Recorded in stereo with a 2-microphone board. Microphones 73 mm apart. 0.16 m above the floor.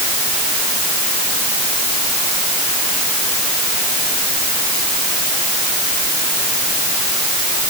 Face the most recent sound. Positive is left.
No sound to turn to.